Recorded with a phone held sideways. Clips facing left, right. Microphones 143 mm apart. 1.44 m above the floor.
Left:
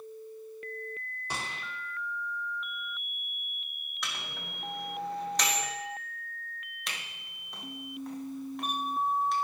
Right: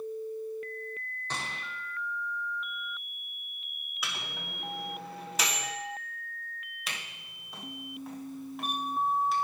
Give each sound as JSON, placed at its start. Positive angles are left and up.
{"t": 1.3, "sound": "a gunshot", "side_deg": 10, "distance_m": 1.7}
{"t": 4.0, "sound": "a microwave", "side_deg": -5, "distance_m": 1.6}
{"t": 6.9, "sound": "a camera shutter", "side_deg": -5, "distance_m": 1.3}